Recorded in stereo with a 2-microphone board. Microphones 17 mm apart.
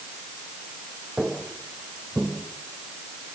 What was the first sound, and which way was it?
Footsteps, 75° right (ahead or behind).